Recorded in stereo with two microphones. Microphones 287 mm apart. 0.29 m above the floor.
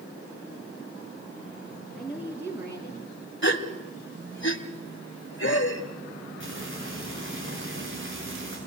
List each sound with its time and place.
1.9 s a woman speaking: centre (ahead or behind), 3 m; by 3.3 s 20° right (ahead or behind), 3 m
3.4 s a gasp: 45° left (ahead or behind), 1.2 m
6.4 s frying: 45° right (ahead or behind), 5.5 m